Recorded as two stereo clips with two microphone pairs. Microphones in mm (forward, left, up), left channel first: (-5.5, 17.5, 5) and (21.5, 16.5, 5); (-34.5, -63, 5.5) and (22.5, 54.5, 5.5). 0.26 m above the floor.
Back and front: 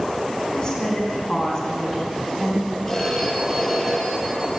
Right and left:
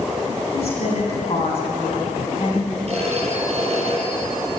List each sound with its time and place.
0.5 s a woman speaking: 130° right, 2.5 m; by 2.8 s 95° right, 1.9 m
2.9 s a phone ringing: 105° left, 5 m